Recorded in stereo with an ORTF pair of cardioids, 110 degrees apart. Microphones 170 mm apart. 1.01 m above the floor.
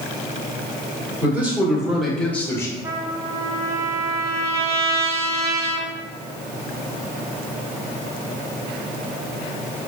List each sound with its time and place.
1.2 s a man speaking: 10° right, 1.8 m; by 2.7 s 20° left, 1.0 m
2.8 s a trumpet: 15° right, 0.6 m